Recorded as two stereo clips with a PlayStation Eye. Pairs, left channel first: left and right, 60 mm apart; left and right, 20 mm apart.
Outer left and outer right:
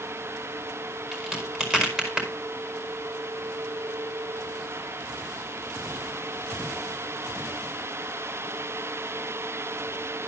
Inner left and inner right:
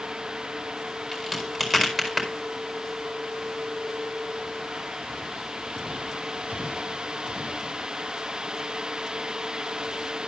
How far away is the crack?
About 5 m.